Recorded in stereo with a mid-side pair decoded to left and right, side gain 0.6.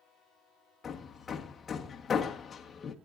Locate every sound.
0.8 s hammering: 30° left, 1.5 m